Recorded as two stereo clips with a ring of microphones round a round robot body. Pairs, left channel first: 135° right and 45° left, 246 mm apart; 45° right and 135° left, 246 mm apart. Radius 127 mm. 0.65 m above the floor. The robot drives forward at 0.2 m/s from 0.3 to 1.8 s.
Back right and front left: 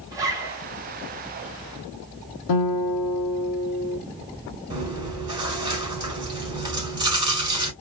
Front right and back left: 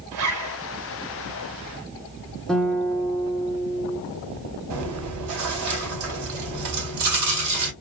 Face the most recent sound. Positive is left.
turn(degrees=120)